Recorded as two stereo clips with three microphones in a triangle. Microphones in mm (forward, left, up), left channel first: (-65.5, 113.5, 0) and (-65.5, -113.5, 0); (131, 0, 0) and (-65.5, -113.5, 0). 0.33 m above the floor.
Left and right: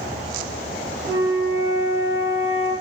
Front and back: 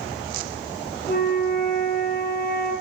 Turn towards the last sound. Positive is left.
turn(degrees=-15)